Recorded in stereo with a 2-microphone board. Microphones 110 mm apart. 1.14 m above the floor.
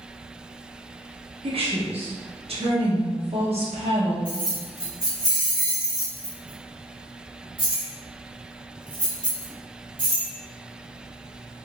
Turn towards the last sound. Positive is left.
turn(degrees=-45)  # may be behind; listen again after turning